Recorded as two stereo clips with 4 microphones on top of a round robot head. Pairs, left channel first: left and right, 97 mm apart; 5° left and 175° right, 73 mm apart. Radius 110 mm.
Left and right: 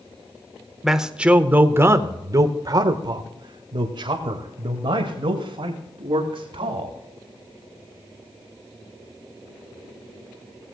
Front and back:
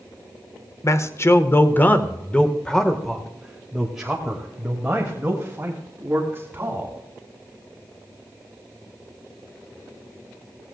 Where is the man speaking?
5° right, 1.2 m; by 7.0 s 110° right, 3 m.